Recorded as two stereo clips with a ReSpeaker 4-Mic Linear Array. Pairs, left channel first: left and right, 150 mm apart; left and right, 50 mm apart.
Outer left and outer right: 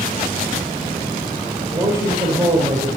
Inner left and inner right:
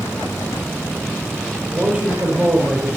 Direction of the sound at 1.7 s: 35° right (ahead or behind).